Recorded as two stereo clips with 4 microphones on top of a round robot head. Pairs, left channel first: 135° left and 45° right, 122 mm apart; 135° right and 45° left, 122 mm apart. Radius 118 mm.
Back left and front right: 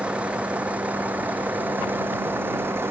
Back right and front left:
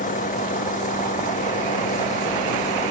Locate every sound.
0.0 s a vehicle: 125° right; by 2.9 s 115° right